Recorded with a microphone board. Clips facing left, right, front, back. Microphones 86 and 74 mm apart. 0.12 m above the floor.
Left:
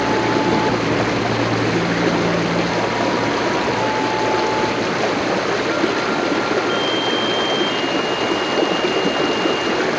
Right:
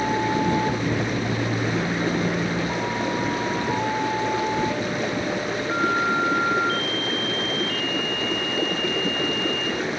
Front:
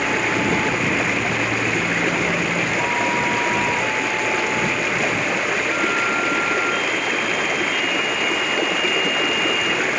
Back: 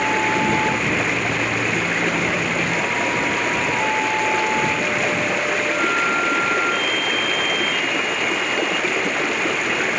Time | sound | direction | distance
0.0 | running water | 90° left | ?